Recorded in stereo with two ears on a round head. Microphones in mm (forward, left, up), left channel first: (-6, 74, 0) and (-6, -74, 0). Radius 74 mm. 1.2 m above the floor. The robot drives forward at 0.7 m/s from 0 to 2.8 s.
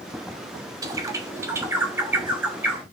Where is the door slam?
I don't hear a door slam.